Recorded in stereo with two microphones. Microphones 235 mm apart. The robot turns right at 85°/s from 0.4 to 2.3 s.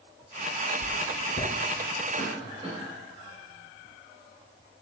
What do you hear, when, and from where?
0.8 s writing: 75° left (ahead or behind), 0.8 m; by 1.5 s 20° left (ahead or behind), 0.8 m
2.2 s a cough: 35° right (ahead or behind), 2.5 m; by 2.8 s 25° right (ahead or behind), 2.5 m